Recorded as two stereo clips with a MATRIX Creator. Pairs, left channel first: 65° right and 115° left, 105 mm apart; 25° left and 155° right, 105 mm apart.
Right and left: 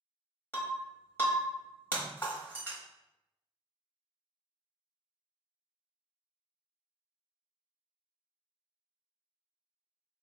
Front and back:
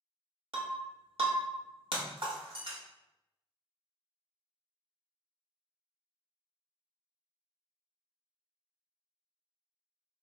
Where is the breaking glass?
135° right, 0.9 m.